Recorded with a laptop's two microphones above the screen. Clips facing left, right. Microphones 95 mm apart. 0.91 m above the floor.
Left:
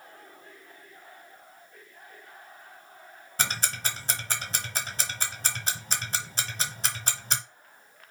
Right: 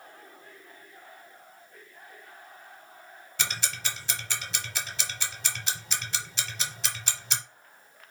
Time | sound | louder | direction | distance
3.4 | ticking | left 3 dB | 45° left (ahead or behind) | 1.0 m